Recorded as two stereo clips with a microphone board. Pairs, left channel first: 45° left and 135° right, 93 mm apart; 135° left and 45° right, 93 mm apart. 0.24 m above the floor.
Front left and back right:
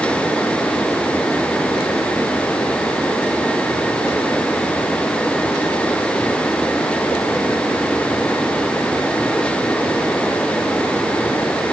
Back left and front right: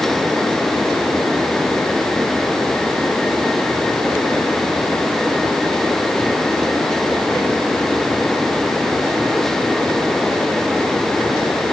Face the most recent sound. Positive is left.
No sound to turn to.